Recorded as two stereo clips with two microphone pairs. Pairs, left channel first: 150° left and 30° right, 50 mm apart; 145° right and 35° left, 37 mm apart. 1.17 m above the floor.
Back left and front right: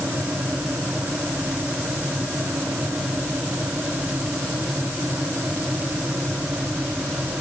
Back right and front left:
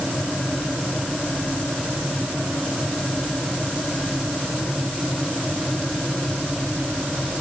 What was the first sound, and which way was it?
Only background noise.